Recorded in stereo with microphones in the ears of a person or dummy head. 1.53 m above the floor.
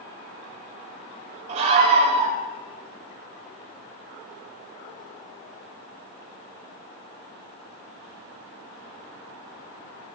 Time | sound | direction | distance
1.5 | a scream | 45° right (ahead or behind) | 7 m